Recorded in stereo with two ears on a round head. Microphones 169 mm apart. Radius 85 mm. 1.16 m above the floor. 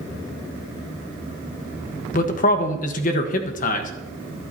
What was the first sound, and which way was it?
A man speaking, 45° left (ahead or behind).